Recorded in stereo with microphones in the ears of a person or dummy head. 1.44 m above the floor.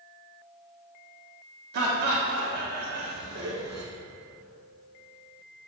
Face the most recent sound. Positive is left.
turn(degrees=-55)  # may be behind; listen again after turning